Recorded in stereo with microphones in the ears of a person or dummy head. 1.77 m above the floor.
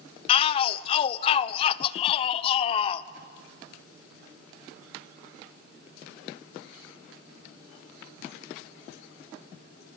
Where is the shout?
30° left (ahead or behind), 0.8 m.